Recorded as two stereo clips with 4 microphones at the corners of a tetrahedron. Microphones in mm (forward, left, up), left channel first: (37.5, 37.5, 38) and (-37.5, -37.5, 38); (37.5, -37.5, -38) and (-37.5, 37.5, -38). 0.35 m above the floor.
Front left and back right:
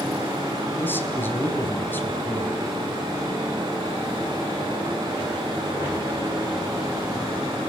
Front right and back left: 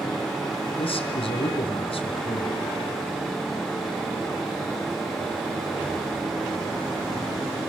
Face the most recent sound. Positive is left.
turn(degrees=-25)